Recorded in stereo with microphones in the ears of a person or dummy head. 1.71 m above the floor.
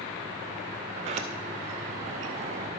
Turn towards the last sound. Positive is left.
turn(degrees=-40)  # may be behind; listen again after turning